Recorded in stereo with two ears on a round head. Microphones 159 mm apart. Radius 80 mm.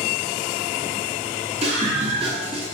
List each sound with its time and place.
1.6 s a scream: 35° right (ahead or behind), 9.5 m